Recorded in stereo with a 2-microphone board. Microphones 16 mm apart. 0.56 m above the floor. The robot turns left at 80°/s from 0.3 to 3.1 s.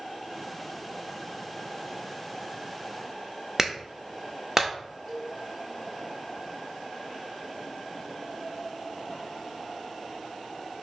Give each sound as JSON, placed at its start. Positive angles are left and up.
{"t": 3.6, "sound": "a clap", "side_deg": -25, "distance_m": 0.7}
{"t": 5.1, "sound": "a cowbell", "side_deg": -10, "distance_m": 2.0}